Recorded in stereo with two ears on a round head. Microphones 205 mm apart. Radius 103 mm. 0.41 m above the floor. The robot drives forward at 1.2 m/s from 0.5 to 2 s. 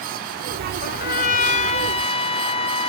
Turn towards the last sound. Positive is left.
turn(degrees=25)  # may be behind; listen again after turning